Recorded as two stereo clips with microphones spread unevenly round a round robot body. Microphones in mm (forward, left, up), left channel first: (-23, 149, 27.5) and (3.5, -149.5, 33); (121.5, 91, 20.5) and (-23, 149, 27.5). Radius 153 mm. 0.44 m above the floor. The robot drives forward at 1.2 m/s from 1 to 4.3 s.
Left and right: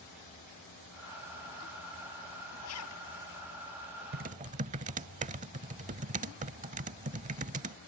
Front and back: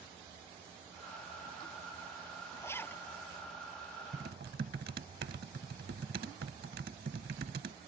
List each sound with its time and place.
2.6 s a zipper: 50° left; by 3.0 s 60° left
4.1 s typing on a keyboard: 145° right; by 7.8 s 150° right